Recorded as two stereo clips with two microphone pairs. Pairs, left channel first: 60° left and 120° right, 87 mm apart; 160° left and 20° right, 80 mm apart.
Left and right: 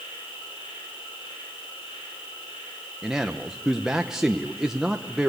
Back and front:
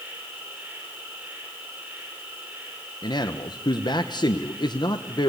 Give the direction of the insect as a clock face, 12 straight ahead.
10 o'clock.